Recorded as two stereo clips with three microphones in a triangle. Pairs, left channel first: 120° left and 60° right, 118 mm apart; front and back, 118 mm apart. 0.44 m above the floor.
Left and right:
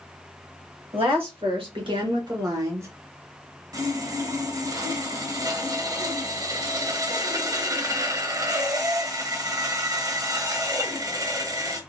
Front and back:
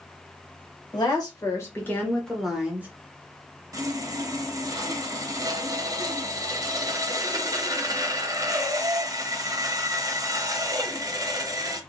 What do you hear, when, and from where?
0.9 s a woman speaking: 45° right, 1.5 m; by 2.9 s 115° right, 1.1 m
3.7 s sawing: 120° right, 0.6 m